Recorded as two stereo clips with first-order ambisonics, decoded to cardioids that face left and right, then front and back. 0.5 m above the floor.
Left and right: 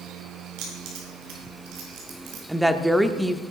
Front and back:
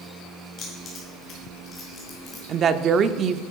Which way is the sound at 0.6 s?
60° right.